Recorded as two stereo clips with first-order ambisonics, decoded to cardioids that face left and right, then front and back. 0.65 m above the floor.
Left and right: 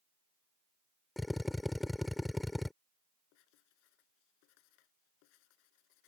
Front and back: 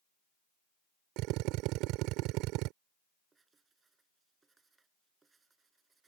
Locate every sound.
1.2 s a drill: 175° left
3.3 s writing: 105° left